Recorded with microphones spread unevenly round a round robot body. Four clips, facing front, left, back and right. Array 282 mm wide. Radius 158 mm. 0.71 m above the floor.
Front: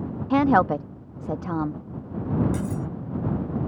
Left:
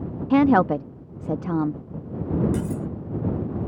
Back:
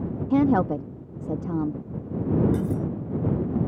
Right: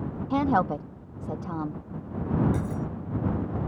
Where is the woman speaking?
85° left.